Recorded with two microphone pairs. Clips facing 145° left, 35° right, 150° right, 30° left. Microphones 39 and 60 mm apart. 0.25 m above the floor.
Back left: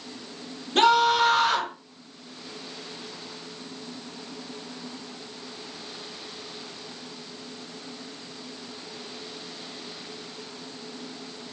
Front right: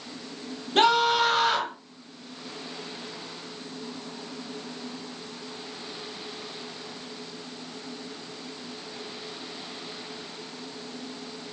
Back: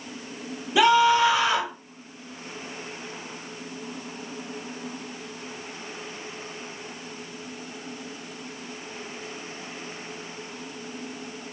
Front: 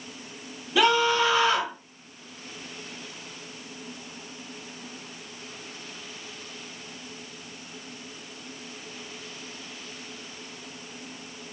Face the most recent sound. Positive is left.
turn(degrees=-100)